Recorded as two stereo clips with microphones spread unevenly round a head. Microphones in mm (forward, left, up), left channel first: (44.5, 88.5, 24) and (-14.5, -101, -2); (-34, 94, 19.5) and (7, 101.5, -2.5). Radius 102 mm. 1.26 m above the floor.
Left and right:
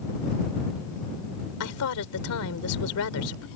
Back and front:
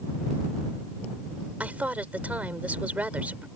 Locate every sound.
1.6 s a woman speaking: 70° left